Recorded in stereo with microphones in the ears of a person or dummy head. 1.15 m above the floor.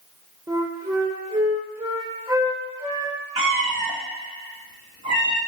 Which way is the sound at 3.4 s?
30° right (ahead or behind).